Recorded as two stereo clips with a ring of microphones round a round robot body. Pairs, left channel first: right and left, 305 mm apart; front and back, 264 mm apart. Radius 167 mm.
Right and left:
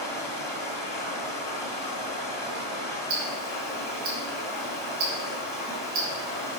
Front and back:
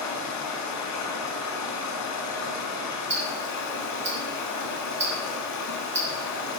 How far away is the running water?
About 1.9 m.